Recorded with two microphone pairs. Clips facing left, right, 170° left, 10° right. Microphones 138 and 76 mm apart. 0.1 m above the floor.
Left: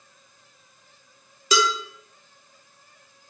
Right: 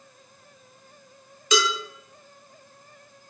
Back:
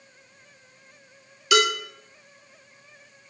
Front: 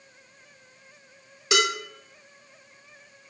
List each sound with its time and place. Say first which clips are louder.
1.5 s dishes clattering: left 1 dB, back 3 dB; 50° left, 1.2 m